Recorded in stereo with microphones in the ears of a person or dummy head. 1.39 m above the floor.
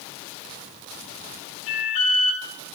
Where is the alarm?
40° left (ahead or behind), 2.5 m.